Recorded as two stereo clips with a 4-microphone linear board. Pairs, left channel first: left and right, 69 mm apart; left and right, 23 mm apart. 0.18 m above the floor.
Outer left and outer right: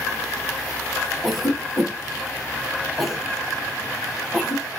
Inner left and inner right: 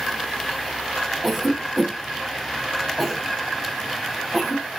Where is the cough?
Centre (ahead or behind), 1.2 m.